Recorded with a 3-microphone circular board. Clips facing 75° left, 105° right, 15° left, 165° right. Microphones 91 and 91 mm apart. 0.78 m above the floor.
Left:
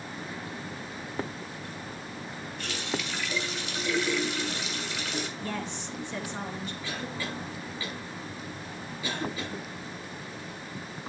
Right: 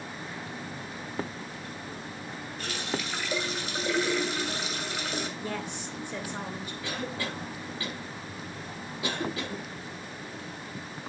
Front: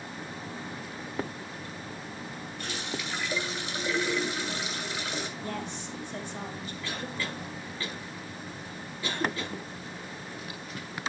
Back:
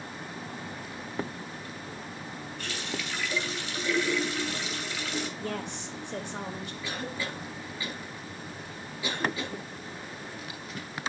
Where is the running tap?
60° right, 2.5 m.